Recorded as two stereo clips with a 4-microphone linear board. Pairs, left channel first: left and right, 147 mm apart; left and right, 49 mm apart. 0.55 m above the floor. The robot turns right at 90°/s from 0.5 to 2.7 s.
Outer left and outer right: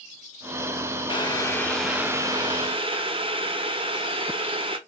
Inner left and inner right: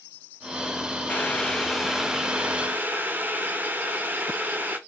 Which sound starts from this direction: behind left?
Boiling, at 1.1 s.